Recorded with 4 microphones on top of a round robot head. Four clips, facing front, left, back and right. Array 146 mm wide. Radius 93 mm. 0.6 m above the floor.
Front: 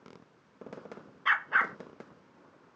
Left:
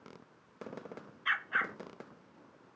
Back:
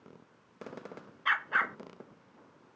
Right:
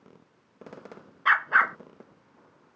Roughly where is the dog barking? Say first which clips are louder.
Right 12 dB, front 2 dB; right.